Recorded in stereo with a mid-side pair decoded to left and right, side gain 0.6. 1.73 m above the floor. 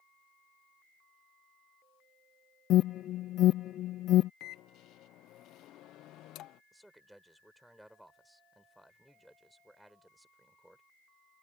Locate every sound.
2.7 s an alarm: 55° left
4.4 s a microwave: 65° left
6.7 s a man speaking: 5° right